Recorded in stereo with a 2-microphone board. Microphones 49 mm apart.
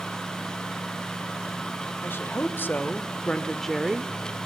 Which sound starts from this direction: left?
A woman speaking, at 2.0 s.